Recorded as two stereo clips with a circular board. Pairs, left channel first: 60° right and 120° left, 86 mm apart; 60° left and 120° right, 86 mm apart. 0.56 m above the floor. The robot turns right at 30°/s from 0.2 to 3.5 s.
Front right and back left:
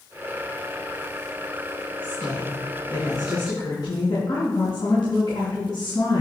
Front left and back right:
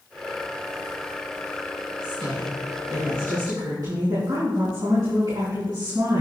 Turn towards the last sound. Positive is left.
turn(degrees=-90)